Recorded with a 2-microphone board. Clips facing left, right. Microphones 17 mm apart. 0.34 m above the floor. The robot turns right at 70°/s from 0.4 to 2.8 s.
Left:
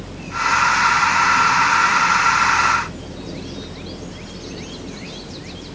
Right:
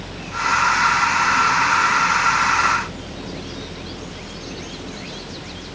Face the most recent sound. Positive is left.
No sound to turn to.